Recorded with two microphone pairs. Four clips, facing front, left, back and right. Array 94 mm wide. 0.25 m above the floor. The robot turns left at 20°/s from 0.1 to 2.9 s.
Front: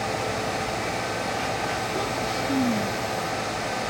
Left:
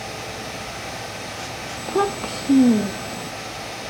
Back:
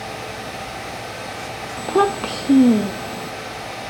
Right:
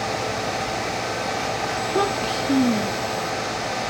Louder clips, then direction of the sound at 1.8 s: Left 2 dB, back 9 dB; straight behind.